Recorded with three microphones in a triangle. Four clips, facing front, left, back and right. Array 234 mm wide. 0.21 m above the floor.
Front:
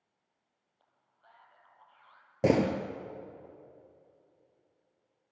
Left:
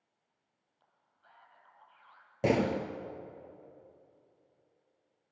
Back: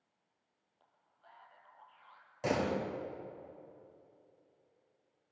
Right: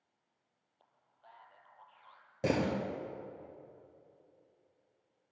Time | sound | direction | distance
0.8 | a man speaking | 85° right | 5.5 m
2.4 | a door slam | 15° left | 2.5 m